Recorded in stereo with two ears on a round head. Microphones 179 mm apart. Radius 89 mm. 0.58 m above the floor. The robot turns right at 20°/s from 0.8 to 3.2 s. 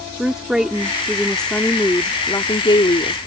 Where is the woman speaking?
5° right; by 3.2 s 45° left.